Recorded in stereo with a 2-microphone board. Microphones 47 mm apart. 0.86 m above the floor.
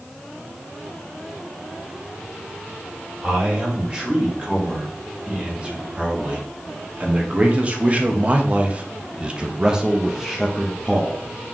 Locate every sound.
3.2 s a man speaking: 25° right (ahead or behind), 3.5 m; by 11.2 s 5° left (ahead or behind), 1.2 m